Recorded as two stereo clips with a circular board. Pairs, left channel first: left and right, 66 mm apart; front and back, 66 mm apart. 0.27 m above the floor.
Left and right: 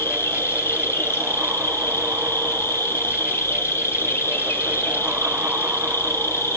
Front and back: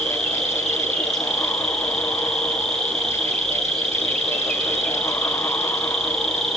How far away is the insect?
About 3 m.